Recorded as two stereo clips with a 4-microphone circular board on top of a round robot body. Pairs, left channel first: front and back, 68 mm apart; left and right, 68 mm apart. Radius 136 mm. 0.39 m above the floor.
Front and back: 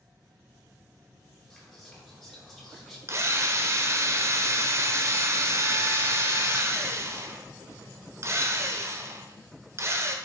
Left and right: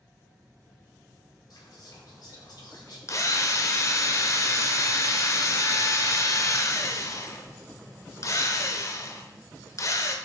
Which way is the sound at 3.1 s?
130° left.